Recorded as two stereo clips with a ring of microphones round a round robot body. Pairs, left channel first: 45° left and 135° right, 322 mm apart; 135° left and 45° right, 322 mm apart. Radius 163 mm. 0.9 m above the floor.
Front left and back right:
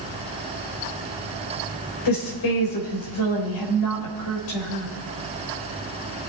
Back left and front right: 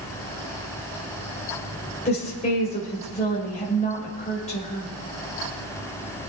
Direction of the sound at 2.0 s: 65° left.